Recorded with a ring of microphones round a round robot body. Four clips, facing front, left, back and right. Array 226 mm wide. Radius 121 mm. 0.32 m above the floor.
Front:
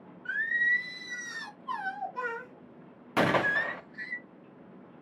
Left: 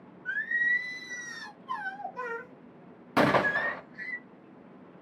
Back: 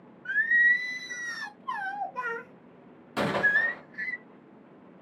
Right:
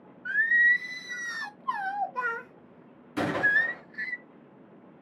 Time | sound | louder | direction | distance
0.2 | singing | right 6 dB, back 5 dB | 110° right | 0.6 m
3.2 | a gunshot | left 3 dB, even | 70° left | 0.6 m